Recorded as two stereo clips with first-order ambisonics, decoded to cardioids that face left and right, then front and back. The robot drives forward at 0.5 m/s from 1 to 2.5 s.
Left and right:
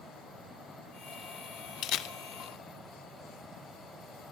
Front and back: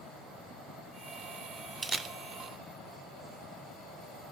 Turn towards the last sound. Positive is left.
turn(degrees=135)